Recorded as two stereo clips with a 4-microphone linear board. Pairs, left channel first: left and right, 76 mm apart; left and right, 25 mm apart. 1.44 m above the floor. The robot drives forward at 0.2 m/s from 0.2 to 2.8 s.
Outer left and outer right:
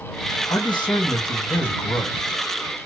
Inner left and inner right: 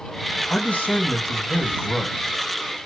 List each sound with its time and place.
0.5 s a man speaking: 80° left, 1.8 m; by 2.4 s 75° left (ahead or behind), 1.9 m